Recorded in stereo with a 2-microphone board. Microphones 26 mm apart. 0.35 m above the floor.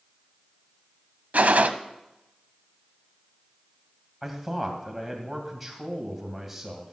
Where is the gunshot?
75° right (ahead or behind), 0.6 m.